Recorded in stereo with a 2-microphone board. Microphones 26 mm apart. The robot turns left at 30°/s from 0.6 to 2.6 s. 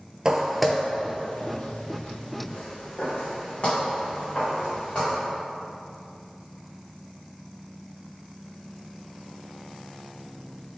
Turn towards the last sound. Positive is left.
turn(degrees=45)  # may be behind; listen again after turning